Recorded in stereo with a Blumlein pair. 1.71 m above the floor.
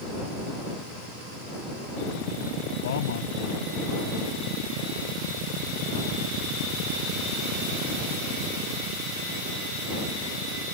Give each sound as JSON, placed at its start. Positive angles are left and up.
{"t": 2.8, "sound": "a man speaking", "azimuth_deg": 60}